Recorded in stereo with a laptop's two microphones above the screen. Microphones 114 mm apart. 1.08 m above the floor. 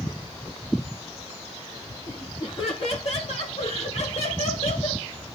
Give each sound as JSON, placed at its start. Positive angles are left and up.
{"t": 2.1, "sound": "laughter", "side_deg": 55, "distance_m": 3.5}